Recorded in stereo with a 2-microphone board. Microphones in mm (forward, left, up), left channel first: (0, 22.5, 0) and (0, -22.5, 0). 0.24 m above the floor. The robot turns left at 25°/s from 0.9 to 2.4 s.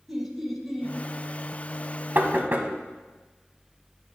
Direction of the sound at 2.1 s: 50° right (ahead or behind).